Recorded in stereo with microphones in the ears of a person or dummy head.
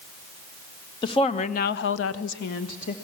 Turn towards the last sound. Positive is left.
turn(degrees=35)  # may be behind; listen again after turning